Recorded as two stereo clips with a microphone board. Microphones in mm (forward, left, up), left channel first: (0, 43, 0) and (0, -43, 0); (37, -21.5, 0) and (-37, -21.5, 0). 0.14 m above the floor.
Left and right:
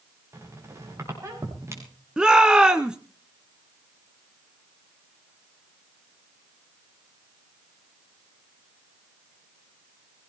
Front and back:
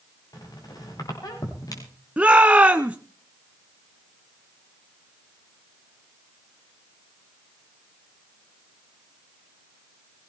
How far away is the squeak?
About 6.5 m.